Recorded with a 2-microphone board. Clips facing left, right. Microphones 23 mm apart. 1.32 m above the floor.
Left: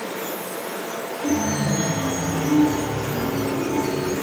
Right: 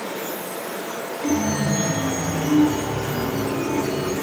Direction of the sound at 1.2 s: 45° right (ahead or behind).